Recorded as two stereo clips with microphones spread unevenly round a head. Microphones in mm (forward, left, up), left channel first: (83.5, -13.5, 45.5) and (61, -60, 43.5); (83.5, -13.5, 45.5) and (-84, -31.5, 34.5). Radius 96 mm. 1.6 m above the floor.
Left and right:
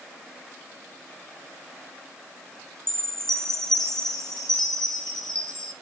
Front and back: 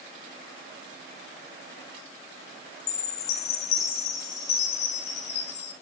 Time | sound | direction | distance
2.9 | a chime | 15° right | 3.5 m